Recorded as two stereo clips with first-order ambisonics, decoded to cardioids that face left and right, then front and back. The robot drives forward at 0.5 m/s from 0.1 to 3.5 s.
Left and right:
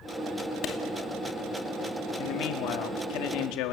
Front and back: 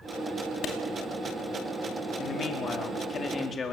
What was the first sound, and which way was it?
A clap, 45° left.